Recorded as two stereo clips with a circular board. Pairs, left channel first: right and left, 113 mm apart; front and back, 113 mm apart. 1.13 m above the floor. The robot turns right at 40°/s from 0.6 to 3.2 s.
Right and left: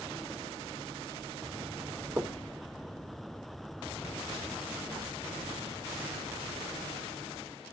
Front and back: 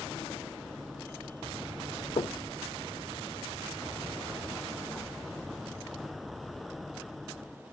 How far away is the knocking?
About 0.7 m.